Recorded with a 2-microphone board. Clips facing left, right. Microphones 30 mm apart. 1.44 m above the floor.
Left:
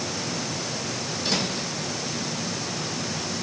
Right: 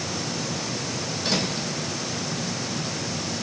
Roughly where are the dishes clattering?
No dishes clattering in this recording.